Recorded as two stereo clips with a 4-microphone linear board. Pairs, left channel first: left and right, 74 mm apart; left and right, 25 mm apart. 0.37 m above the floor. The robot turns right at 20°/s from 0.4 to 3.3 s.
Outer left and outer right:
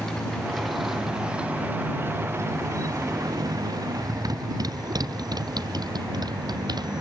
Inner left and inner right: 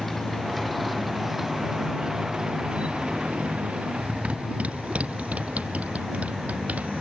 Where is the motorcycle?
5° left (ahead or behind); by 7.0 s 75° right (ahead or behind).